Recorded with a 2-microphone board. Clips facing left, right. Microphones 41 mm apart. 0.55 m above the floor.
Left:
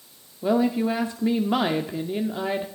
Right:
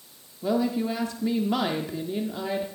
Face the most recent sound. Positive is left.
turn(degrees=20)  # may be behind; listen again after turning